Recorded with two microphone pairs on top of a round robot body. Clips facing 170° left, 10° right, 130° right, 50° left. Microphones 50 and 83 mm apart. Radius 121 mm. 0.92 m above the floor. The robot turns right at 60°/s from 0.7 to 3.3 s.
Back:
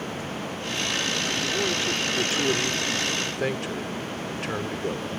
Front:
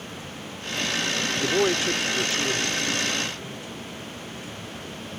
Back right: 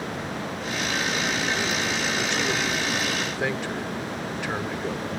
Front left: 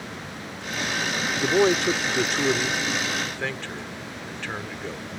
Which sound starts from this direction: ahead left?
A man speaking, at 1.4 s.